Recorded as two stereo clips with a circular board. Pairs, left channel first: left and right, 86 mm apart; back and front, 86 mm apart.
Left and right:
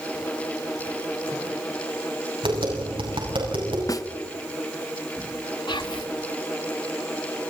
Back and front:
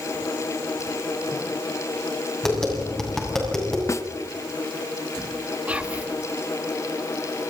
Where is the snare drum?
130° left, 0.9 m.